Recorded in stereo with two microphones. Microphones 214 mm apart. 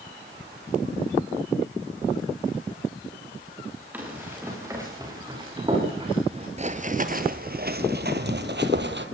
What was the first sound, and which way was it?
Running footsteps, 10° right (ahead or behind).